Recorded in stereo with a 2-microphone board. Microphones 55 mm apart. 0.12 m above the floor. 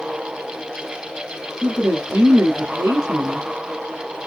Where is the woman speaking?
50° right (ahead or behind), 1.9 m.